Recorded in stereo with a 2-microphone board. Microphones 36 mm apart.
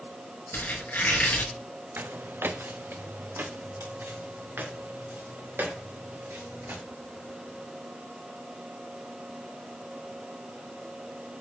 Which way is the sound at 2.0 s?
70° right (ahead or behind).